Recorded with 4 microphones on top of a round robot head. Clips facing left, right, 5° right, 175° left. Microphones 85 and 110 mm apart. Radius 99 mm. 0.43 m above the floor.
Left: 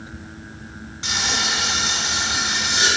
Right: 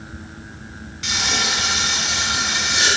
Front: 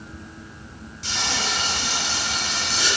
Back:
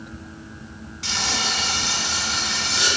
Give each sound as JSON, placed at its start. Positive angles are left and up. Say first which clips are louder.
{"t": 1.0, "sound": "frying", "louder": "right 1 dB, even", "azimuth_deg": 150, "distance_m": 4.5}